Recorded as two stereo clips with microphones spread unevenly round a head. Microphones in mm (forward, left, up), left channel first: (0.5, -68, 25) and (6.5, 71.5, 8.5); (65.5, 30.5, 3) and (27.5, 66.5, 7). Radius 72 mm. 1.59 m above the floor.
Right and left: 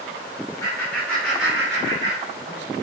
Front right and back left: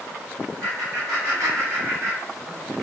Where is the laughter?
160° right, 1.3 m; by 2.7 s 90° left, 0.9 m.